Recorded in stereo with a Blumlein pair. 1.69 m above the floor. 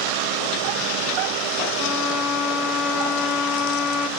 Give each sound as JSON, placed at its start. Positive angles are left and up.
{"t": 1.8, "sound": "a violin", "azimuth_deg": 40, "distance_m": 1.0}